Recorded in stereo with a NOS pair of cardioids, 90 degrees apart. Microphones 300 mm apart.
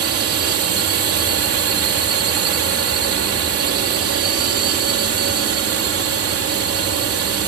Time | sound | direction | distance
0.0 | a drone | 55° right | ?